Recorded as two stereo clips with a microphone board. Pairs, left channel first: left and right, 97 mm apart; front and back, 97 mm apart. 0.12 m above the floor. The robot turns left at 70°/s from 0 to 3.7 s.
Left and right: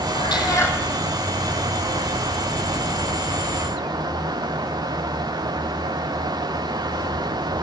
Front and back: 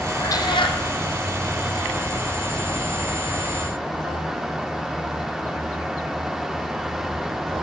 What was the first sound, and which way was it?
A cat meowing, 60° left.